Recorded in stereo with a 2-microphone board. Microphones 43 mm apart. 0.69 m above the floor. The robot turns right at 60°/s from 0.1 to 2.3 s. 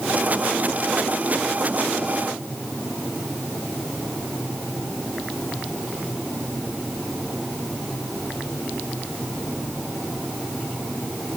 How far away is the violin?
I don't hear a violin.